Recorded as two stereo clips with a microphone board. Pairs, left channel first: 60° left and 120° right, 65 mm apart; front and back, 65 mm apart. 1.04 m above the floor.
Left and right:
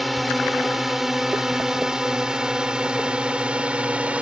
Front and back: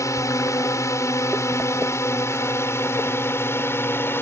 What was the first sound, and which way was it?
A drone, 30° right.